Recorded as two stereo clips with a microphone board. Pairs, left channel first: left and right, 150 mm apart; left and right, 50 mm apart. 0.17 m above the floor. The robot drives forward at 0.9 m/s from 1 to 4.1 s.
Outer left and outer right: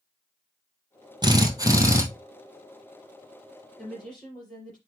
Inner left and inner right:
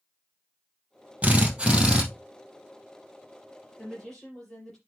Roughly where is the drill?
Right.